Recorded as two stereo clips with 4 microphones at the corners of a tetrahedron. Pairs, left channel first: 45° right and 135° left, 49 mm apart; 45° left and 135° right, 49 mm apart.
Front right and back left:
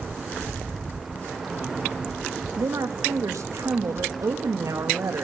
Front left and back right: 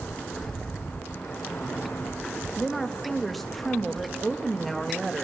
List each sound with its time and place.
2.6 s a woman speaking: 135° left, 2.5 m